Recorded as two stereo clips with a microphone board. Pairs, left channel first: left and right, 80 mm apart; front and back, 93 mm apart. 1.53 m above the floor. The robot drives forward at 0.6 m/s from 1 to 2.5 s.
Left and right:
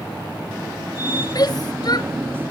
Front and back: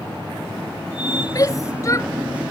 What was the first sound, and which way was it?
A shout, 50° left.